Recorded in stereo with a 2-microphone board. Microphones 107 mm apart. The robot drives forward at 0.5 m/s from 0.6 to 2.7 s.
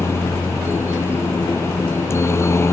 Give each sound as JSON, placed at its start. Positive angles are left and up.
{"t": 0.0, "sound": "a helicopter", "side_deg": 25}